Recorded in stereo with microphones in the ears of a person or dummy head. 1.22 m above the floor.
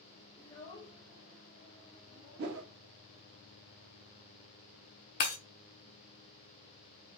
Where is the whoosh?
55° right (ahead or behind), 1.5 m.